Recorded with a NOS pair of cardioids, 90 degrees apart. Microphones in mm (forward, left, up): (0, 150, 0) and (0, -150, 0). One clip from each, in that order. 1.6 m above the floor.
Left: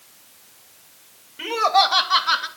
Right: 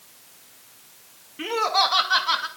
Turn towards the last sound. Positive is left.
turn(degrees=10)